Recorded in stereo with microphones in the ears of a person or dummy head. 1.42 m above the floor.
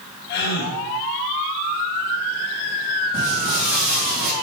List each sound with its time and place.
0.3 s a gasp: 55° left (ahead or behind), 1.7 m
3.1 s footsteps: 35° right (ahead or behind), 4 m